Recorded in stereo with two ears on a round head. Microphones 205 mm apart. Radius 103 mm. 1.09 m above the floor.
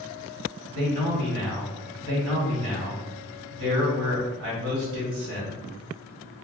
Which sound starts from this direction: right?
A man speaking, at 0.7 s.